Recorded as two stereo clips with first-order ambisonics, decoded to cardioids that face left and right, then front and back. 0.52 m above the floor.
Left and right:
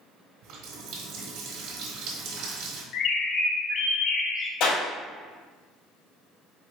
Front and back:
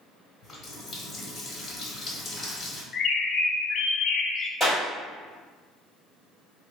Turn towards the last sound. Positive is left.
turn(degrees=100)